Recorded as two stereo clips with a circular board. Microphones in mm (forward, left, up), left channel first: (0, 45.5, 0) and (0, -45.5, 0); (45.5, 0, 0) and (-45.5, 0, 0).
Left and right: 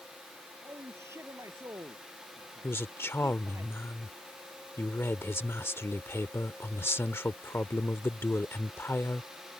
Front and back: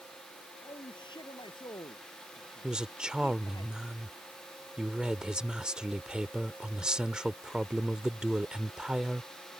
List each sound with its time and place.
0.6 s a man speaking: 30° right
2.6 s a woman speaking: 110° left